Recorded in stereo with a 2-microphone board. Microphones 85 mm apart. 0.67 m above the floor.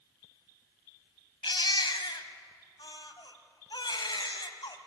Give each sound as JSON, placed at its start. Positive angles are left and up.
{"t": 1.4, "sound": "a baby crying", "side_deg": 70, "distance_m": 1.3}